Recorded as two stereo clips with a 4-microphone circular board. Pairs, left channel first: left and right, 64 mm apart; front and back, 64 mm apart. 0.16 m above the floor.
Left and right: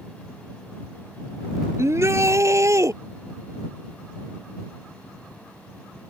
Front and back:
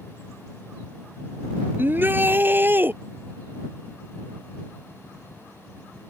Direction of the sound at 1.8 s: 125° right.